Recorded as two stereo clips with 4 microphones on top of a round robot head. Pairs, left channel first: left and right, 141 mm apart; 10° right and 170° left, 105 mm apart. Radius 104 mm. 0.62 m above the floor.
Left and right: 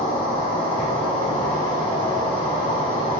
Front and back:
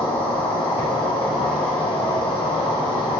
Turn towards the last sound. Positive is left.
turn(degrees=30)